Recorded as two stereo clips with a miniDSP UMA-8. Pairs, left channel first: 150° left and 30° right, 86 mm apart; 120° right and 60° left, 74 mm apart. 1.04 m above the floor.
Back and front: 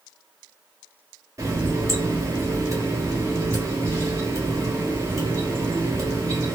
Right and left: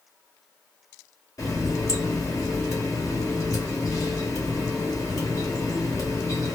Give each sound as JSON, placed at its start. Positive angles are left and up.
{"t": 1.4, "sound": "a running tap", "azimuth_deg": -80, "distance_m": 0.9}